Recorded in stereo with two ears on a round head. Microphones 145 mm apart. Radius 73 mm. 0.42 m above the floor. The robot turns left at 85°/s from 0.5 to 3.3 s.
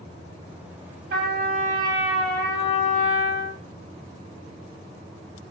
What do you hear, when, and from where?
1.1 s a trumpet: 85° right, 3 m; by 3.6 s 90° left, 3 m